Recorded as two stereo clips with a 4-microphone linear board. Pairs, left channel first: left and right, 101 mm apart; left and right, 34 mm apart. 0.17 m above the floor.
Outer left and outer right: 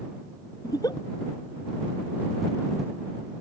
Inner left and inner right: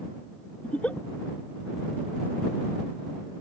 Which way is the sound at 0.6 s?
40° left (ahead or behind).